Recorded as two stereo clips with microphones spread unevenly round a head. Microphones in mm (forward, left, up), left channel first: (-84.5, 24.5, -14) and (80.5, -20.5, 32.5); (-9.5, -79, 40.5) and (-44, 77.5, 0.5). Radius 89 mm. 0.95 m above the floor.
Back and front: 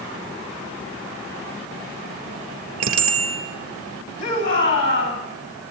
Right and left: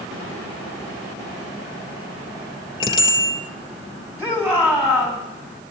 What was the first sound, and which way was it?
A bicycle bell, 5° right.